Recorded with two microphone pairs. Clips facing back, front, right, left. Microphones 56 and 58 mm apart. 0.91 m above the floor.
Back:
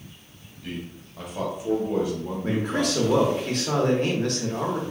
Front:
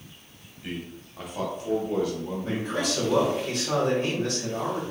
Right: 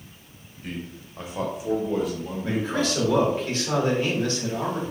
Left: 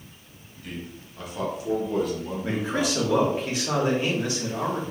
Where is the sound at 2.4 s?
160° left, 1.0 m.